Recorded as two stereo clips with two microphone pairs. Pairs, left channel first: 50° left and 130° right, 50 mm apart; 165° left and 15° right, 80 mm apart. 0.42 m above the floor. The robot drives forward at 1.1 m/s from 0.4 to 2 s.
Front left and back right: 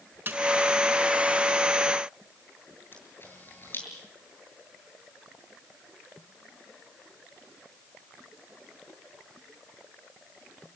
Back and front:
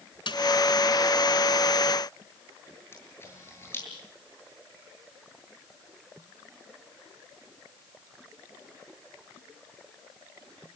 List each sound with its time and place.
0.3 s a snare drum: straight behind, 3.5 m
2.9 s a camera shutter: 100° left, 8 m